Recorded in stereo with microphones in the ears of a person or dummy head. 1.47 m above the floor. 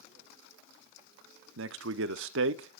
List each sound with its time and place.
1.6 s a man speaking: 80° right, 0.6 m